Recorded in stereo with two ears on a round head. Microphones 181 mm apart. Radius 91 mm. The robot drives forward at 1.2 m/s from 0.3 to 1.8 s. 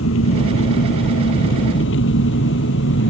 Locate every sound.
0.0 s an engine running: 75° left (ahead or behind); by 3.1 s 65° left (ahead or behind)